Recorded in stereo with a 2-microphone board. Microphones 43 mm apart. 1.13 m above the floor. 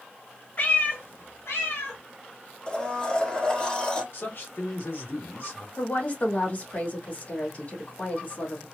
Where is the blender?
20° left (ahead or behind), 1.1 m.